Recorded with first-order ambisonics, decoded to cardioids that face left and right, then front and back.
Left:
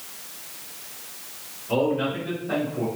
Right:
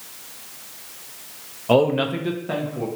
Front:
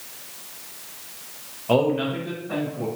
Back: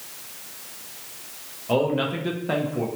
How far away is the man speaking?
About 0.5 m.